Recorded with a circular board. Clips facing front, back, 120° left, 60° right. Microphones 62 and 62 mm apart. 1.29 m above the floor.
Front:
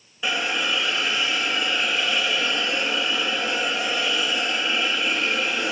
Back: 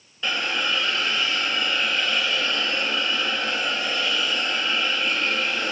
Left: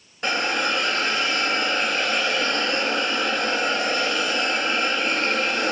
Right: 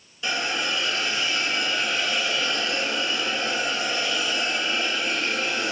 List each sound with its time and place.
0.2 s a hiss: 80° left, 2 m